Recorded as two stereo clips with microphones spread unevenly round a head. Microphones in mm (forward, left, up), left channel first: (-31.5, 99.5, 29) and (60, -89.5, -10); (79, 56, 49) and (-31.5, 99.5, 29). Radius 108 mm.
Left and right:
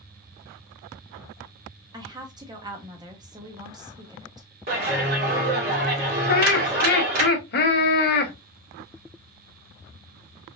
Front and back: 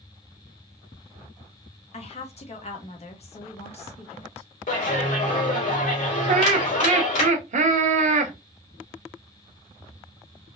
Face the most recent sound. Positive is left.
turn(degrees=165)